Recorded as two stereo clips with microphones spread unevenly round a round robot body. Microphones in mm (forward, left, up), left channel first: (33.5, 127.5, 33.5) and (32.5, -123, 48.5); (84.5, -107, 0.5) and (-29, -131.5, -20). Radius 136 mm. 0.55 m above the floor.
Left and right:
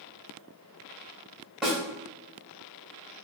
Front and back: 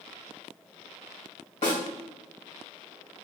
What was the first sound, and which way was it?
A snare drum, 5° right.